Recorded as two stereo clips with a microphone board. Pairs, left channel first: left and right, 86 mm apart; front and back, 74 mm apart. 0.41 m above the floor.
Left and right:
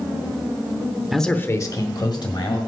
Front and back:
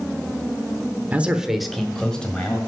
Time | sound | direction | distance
1.1 | a man speaking | 175° right | 0.8 m